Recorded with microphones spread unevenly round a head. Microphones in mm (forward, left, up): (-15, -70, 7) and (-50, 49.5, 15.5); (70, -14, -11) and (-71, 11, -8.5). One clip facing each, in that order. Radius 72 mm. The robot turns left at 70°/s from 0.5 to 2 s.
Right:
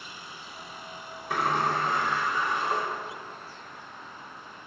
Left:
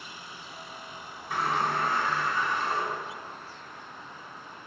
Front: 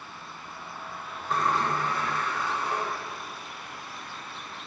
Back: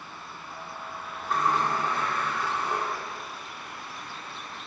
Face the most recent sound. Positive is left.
turn(degrees=-150)